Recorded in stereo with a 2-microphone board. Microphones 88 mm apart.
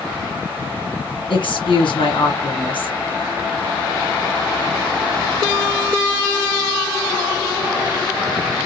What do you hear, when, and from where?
1.3 s a woman speaking: 70° left (ahead or behind), 2.5 m